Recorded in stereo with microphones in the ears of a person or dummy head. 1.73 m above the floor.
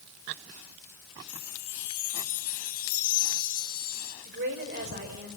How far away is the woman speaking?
About 6.5 m.